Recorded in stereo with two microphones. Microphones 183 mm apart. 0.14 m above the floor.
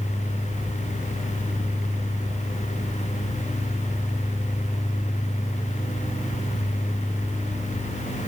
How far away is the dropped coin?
I don't hear a dropped coin.